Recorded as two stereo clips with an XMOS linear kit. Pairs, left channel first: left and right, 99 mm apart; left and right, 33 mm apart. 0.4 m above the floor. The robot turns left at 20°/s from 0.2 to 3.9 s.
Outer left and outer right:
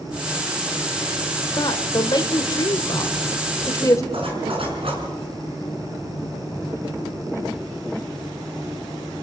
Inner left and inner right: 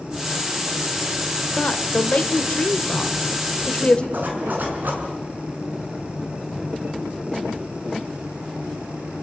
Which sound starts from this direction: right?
A zipper, at 4.1 s.